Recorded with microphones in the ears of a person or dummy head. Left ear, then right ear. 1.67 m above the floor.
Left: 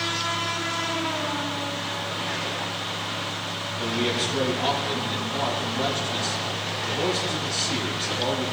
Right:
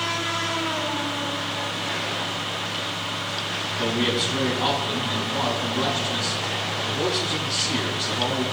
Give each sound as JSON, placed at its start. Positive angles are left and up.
{"t": 3.8, "sound": "a man speaking", "side_deg": -50, "distance_m": 2.5}